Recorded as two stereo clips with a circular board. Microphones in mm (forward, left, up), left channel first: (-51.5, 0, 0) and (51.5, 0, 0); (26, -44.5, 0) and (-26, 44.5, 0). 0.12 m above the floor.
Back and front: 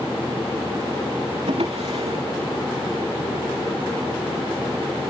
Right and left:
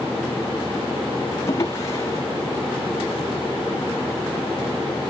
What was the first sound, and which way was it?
A drawer, 5° left.